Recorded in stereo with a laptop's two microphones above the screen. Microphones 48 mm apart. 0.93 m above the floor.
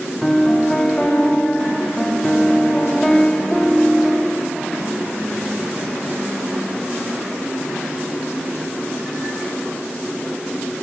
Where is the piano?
15° left (ahead or behind), 0.7 m.